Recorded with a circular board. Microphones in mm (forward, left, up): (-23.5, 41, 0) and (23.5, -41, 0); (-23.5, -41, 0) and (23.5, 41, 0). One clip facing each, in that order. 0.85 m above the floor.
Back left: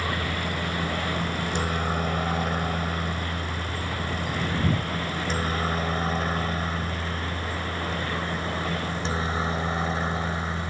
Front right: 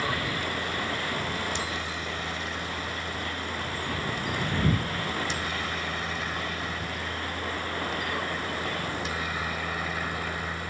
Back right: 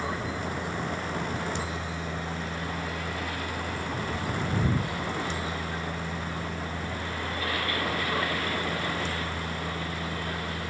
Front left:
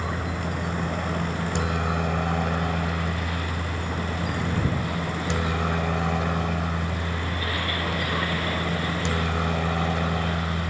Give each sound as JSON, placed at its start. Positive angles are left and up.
{"t": 0.0, "sound": "a helicopter", "azimuth_deg": 85}